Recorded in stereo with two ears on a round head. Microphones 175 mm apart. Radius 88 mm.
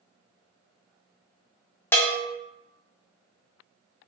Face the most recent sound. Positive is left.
turn(degrees=10)  # may be behind; listen again after turning